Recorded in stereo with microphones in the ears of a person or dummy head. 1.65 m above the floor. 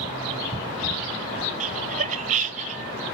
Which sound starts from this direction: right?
Laughter, at 1.6 s.